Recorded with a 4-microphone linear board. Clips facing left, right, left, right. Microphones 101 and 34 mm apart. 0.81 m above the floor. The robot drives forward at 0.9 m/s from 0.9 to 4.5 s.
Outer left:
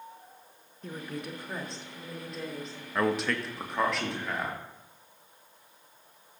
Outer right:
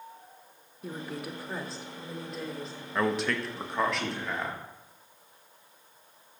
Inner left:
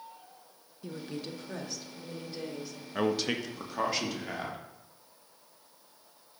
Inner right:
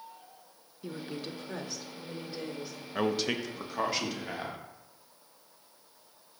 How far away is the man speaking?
About 0.6 m.